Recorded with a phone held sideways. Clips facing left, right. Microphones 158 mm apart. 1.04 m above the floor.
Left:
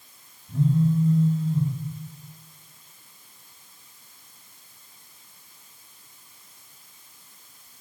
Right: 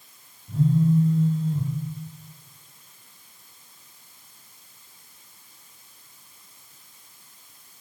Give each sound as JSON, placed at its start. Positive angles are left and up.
{"t": 0.5, "sound": "a phone buzzing", "side_deg": -45, "distance_m": 0.9}